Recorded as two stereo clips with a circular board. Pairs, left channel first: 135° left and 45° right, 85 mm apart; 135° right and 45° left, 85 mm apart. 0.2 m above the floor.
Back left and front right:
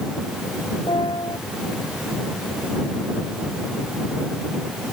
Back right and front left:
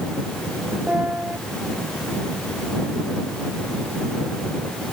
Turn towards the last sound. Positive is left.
turn(degrees=120)